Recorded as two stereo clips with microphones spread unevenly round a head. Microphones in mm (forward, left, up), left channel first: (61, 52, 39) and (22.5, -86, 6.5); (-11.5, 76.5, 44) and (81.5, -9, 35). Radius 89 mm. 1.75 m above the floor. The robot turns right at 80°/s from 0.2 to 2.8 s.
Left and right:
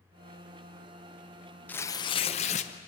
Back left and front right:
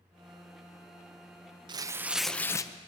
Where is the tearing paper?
5° left, 0.7 m; by 2.7 s 90° left, 0.7 m.